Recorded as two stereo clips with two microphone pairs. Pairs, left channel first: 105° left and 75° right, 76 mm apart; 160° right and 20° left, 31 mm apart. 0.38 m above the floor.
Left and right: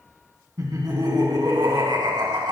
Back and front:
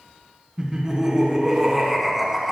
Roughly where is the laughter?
Ahead right.